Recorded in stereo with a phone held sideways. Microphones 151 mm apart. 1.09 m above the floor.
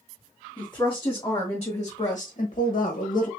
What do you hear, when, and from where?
0.6 s a woman speaking: 15° left (ahead or behind), 2.5 m; by 3.3 s 55° left (ahead or behind), 1.4 m